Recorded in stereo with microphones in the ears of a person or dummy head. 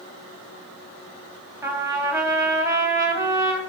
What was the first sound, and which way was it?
A trumpet, 20° right (ahead or behind).